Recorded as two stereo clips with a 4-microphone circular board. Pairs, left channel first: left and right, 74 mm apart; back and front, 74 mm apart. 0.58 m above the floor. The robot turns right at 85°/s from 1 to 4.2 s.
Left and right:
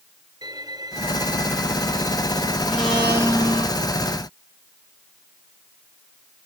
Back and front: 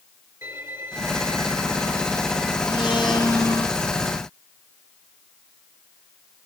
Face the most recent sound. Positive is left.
turn(degrees=-60)